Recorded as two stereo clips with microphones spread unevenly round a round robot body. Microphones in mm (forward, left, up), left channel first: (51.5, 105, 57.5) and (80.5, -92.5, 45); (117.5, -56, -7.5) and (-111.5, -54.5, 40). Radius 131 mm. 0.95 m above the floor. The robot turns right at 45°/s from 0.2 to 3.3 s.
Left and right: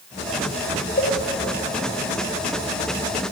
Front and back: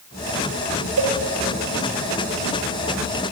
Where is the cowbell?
150° left, 3.5 m; by 1.2 s 160° left, 3.5 m.